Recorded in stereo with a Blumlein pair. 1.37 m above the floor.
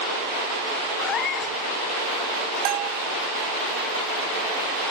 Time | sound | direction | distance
1.0 | a cat meowing | 25° left | ?
2.6 | a bell | 40° right | ?